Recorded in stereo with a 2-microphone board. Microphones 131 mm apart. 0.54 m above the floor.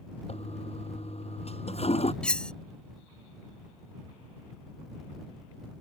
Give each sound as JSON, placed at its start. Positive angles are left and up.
{"t": 0.3, "sound": "a toilet flushing", "side_deg": 55}
{"t": 2.2, "sound": "cutlery clinking", "side_deg": 10}